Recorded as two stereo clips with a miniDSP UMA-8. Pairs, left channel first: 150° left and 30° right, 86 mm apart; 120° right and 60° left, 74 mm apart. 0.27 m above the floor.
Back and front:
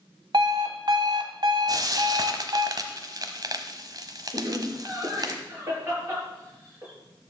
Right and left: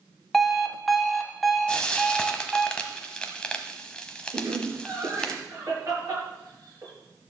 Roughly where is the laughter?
Ahead.